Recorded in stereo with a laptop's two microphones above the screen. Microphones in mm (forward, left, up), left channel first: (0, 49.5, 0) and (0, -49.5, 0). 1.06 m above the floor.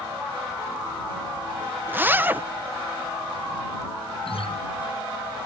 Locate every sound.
1.9 s a zipper: 20° right (ahead or behind)
4.2 s a guitar: 75° left (ahead or behind)